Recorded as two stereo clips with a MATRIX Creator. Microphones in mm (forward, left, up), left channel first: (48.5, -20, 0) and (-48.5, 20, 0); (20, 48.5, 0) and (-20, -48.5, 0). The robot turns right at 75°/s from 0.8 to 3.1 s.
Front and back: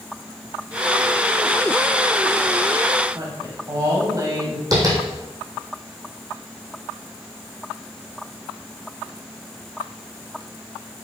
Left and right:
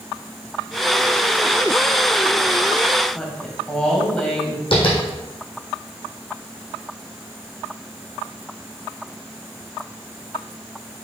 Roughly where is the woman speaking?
Behind left.